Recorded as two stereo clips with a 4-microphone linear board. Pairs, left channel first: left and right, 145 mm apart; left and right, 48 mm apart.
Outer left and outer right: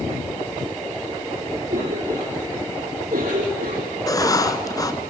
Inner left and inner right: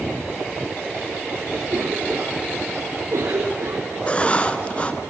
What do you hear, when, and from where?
1.7 s a cough: 70° right (ahead or behind), 4 m
4.1 s writing: 25° left (ahead or behind), 1.2 m